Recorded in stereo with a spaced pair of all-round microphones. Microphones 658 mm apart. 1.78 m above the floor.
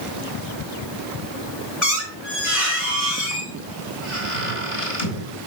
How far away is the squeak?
About 3.5 m.